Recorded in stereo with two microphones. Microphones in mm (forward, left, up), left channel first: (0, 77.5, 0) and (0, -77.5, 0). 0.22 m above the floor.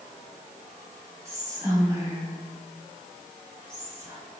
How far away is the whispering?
About 0.9 m.